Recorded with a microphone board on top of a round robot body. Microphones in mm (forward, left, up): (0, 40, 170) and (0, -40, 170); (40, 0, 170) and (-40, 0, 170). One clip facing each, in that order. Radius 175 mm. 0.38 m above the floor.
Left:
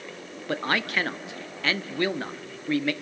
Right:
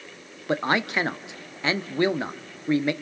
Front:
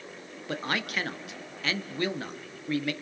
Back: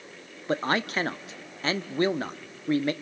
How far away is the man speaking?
About 0.9 m.